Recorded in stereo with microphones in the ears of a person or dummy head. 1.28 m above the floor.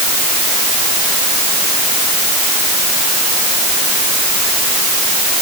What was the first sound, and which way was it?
Only background noise.